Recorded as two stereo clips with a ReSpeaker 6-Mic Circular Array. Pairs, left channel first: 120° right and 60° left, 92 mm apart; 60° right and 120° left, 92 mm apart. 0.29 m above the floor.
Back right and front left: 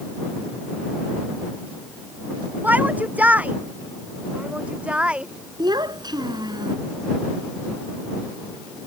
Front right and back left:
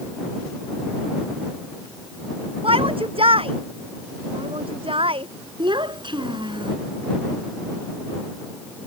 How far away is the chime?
No chime in this recording.